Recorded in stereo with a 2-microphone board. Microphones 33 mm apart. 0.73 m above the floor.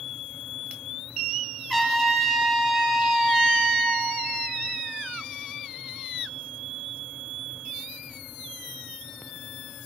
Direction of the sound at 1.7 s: 5° right (ahead or behind).